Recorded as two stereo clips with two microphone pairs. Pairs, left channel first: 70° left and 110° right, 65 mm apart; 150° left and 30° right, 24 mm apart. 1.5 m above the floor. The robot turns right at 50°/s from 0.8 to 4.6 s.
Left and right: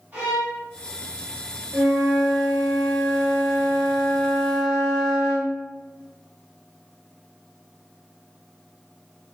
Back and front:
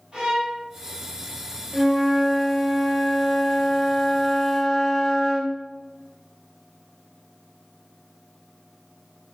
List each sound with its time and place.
0.1 s a violin: 65° right, 1.0 m
1.7 s a flute: 75° right, 1.3 m; by 5.5 s 65° left, 1.3 m